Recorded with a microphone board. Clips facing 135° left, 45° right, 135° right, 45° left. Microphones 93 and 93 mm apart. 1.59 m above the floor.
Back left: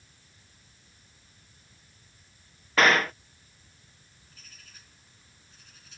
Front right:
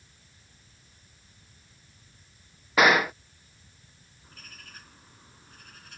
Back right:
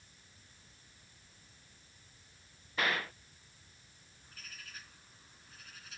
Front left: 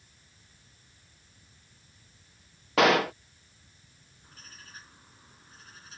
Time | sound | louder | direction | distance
2.8 | a gunshot | front right 1 dB, front left 13 dB | 35° left | ?
4.2 | a bird | front right 8 dB, front left 2 dB | 15° right | ?